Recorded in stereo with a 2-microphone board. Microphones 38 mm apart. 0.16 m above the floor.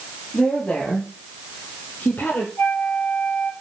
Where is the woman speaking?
30° left (ahead or behind), 5 m; by 2.5 s 65° left (ahead or behind), 4.5 m.